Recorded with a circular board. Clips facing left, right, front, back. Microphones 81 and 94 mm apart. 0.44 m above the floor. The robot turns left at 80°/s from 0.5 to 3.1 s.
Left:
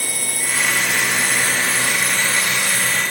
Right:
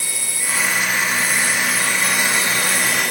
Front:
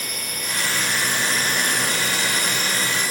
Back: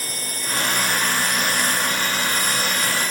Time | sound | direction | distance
0.0 | a drone | 125° left | ?